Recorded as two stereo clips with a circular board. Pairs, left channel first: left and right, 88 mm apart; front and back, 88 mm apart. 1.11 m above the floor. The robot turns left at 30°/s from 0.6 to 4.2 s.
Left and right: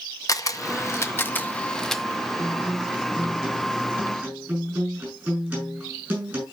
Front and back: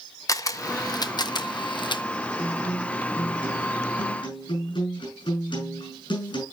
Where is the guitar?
35° left, 7.5 m; by 6.4 s 20° right, 7.5 m.